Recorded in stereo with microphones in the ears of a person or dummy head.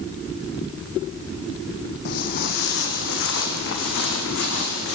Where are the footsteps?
50° left (ahead or behind), 3.5 m; by 5.0 s 75° left (ahead or behind), 6.5 m.